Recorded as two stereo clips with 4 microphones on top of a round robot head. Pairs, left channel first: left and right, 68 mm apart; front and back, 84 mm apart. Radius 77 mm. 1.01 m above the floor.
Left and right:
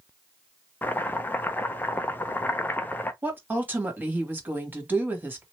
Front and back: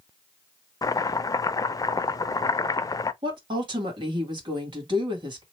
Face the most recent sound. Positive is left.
turn(degrees=-155)